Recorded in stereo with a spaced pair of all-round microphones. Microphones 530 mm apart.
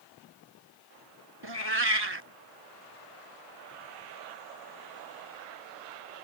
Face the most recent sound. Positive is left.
turn(degrees=-50)  # may be behind; listen again after turning